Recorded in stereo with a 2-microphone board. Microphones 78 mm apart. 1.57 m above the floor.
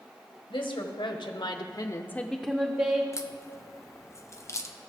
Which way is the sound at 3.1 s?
35° left (ahead or behind).